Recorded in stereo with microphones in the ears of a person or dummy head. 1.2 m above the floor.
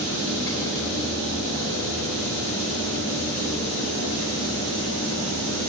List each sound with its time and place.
0.0 s a fan: 15° left (ahead or behind), 5 m